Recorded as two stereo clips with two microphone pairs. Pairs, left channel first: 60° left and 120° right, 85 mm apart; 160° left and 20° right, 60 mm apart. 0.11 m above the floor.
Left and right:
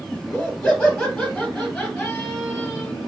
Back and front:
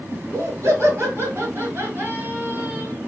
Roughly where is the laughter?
Ahead right.